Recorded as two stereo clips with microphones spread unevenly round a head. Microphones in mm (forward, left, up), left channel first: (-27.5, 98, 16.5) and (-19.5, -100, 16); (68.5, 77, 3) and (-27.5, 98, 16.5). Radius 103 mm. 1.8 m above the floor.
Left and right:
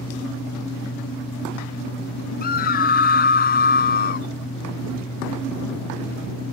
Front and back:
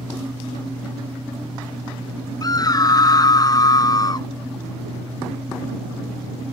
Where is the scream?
40° left.